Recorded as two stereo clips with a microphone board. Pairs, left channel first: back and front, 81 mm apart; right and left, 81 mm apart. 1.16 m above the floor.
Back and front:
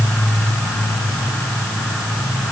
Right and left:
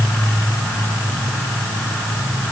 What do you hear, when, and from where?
Only background noise.